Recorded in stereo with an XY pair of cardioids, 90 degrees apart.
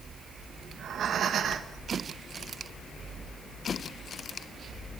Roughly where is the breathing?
Ahead right.